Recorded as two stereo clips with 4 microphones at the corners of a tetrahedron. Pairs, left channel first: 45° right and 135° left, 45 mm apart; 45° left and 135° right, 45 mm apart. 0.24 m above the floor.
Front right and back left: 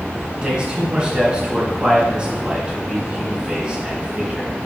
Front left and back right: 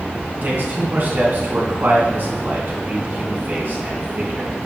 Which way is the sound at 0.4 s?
160° right.